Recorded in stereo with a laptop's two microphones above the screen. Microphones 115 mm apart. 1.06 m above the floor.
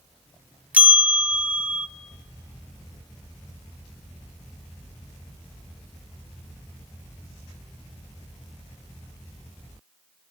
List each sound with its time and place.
0.7 s a bell: 10° right (ahead or behind), 0.6 m